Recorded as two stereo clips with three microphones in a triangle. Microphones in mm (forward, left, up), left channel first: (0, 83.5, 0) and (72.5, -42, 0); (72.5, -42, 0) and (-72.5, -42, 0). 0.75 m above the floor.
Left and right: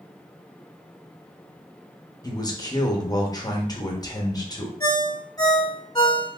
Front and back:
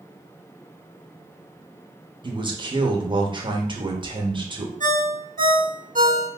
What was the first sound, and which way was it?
A man speaking, 160° left.